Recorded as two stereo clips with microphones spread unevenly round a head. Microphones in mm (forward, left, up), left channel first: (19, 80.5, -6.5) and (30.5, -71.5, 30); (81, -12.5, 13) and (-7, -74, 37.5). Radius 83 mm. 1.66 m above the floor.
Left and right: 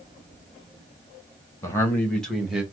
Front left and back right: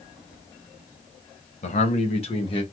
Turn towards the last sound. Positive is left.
turn(degrees=-5)